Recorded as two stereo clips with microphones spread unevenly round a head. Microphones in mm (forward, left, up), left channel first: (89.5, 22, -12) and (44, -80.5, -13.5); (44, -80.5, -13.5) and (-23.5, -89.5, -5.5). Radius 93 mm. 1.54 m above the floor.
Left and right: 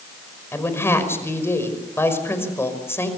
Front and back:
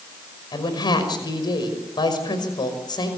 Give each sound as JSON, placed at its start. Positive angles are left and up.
{"t": 0.5, "sound": "a woman speaking", "azimuth_deg": 0, "distance_m": 5.5}